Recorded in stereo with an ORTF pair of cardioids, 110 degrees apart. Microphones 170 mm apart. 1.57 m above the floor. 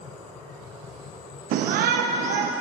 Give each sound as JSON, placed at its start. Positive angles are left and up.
{"t": 1.5, "sound": "a shout", "azimuth_deg": -65, "distance_m": 0.7}